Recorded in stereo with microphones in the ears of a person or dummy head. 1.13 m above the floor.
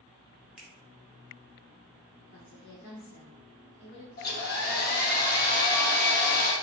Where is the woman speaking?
60° left (ahead or behind), 1.1 m.